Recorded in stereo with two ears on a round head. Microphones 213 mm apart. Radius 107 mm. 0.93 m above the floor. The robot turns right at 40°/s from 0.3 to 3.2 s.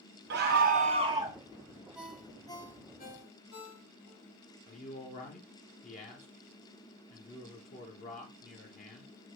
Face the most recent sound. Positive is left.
turn(degrees=35)  # may be behind; listen again after turning